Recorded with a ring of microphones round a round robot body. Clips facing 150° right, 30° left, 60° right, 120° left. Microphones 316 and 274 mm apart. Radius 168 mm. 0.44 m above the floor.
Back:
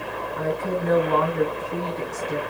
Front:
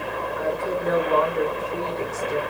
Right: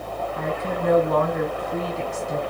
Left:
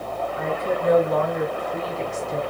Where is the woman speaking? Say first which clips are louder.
Back 1 dB, left 2 dB; 100° right, 4.5 m.